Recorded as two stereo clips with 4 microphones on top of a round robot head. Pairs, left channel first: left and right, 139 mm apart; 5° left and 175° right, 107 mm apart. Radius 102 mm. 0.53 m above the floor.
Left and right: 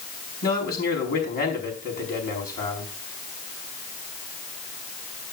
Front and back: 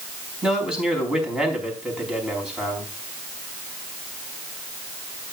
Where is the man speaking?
105° left, 5 m.